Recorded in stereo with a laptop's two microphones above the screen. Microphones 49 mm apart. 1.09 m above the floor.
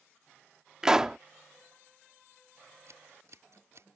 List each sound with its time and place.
0.8 s a pop: 10° right (ahead or behind)
2.9 s scissors: 70° right (ahead or behind)